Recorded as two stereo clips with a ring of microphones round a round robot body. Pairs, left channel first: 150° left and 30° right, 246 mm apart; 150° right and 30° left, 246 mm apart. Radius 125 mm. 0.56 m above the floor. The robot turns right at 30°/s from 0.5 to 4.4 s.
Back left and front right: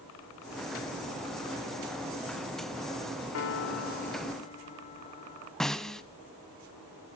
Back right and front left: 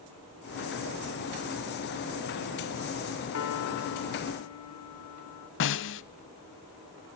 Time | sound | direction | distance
3.3 | a piano | straight behind | 1.7 m
5.6 | a snare drum | 120° right | 0.5 m